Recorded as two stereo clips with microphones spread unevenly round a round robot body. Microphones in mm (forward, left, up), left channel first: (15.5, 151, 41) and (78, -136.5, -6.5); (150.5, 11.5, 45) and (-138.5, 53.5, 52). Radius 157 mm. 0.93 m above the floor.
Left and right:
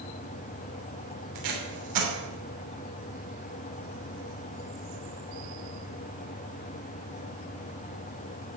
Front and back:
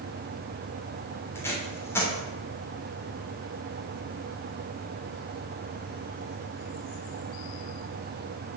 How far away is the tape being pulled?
About 3 m.